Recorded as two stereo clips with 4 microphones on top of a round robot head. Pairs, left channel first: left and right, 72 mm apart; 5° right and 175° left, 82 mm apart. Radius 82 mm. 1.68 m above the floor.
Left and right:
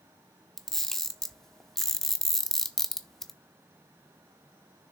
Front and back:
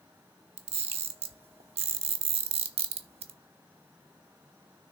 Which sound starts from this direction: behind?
A camera shutter, at 0.6 s.